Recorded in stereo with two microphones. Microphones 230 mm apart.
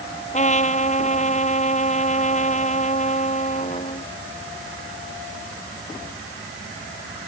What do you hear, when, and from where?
0.3 s a trumpet: 30° left (ahead or behind)